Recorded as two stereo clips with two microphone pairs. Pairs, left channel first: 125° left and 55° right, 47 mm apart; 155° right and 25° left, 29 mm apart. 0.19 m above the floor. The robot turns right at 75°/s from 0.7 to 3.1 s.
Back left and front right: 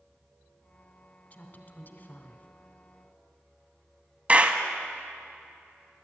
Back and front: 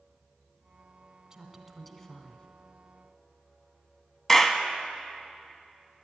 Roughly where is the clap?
Right.